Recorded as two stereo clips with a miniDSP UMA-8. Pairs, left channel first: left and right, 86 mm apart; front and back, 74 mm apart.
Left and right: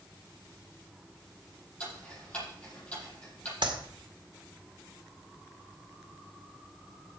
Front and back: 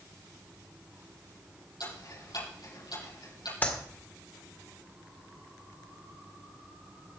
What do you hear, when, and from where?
1.8 s ticking: 15° left, 8.5 m
3.6 s a clap: 65° right, 2 m